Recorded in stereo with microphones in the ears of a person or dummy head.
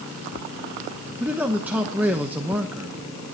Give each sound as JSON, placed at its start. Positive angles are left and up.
{"t": 1.2, "sound": "a man speaking", "side_deg": -5, "distance_m": 0.9}